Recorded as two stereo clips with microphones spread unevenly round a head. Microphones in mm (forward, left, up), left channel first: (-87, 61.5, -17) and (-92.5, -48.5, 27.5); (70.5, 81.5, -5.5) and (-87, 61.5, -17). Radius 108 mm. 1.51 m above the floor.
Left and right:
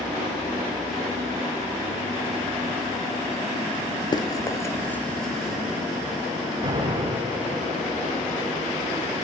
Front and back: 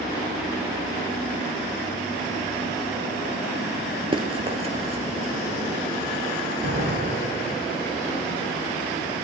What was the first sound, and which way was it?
Running footsteps, 150° left.